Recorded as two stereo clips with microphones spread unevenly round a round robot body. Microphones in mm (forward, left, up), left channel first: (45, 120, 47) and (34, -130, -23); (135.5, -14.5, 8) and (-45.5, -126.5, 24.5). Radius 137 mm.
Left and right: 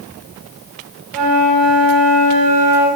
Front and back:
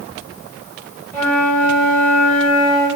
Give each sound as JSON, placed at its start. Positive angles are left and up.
{"t": 1.1, "sound": "a flute", "azimuth_deg": -110, "distance_m": 4.5}